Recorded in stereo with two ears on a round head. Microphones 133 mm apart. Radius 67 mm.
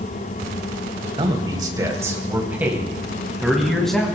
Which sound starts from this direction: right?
A man speaking, at 1.2 s.